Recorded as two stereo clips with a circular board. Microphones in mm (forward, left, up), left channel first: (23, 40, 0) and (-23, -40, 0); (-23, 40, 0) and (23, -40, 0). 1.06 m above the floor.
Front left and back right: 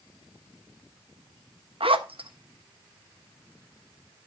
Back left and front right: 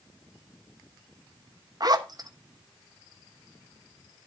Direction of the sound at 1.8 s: 105° right.